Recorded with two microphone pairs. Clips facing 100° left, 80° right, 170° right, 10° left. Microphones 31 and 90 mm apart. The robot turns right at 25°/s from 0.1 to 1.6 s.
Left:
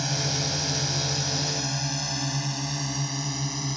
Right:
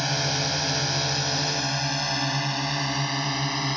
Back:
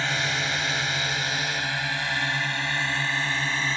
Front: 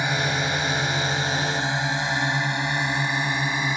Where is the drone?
45° right; by 3.8 s 55° right.